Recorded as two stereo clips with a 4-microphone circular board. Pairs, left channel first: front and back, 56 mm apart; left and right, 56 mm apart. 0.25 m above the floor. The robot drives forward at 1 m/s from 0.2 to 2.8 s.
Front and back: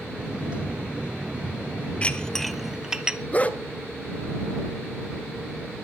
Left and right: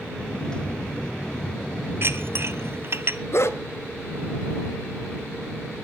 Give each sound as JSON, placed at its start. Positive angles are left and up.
{"t": 2.0, "sound": "dishes clattering", "azimuth_deg": -60, "distance_m": 1.3}
{"t": 3.3, "sound": "a dog barking", "azimuth_deg": 60, "distance_m": 1.1}